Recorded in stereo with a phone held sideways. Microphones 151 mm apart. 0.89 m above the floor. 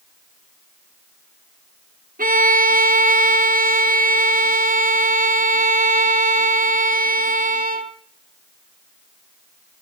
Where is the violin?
65° right (ahead or behind), 0.9 m.